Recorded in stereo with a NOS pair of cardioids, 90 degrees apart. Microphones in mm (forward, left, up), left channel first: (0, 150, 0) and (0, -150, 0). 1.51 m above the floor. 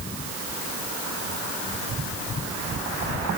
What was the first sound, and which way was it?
Only background noise.